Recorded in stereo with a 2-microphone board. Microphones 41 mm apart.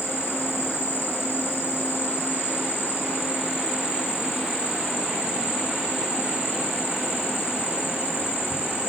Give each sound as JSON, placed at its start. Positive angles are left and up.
{"t": 0.0, "sound": "an insect", "side_deg": 75, "distance_m": 7.5}